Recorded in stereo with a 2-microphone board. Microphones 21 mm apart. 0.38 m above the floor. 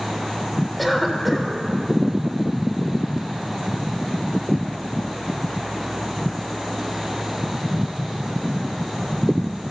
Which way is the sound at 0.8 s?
Centre (ahead or behind).